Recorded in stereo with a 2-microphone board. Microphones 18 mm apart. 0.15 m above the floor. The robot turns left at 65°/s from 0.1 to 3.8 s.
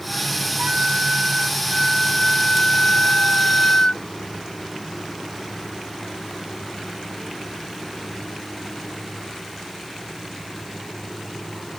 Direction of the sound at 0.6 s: 100° right.